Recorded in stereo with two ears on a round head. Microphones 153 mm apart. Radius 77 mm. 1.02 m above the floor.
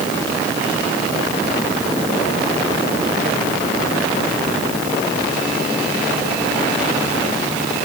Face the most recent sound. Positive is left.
No sound to turn to.